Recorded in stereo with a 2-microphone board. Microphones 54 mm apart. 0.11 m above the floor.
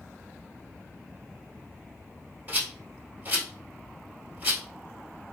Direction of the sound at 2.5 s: 35° right (ahead or behind).